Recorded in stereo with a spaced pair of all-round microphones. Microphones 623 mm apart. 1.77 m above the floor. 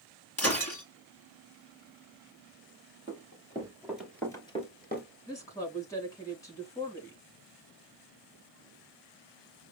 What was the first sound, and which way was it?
Breaking glass, 25° left (ahead or behind).